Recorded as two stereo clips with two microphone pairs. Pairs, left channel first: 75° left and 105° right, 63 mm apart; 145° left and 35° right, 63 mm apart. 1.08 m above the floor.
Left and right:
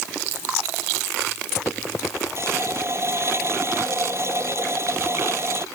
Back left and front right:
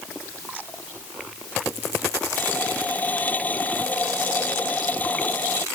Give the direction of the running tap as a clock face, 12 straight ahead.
5 o'clock.